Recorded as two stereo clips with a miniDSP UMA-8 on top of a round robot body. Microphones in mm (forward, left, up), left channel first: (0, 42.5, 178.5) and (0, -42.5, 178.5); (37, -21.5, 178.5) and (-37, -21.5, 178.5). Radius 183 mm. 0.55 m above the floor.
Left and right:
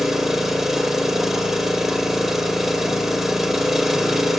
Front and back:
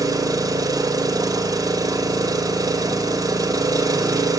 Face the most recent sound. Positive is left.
turn(degrees=-175)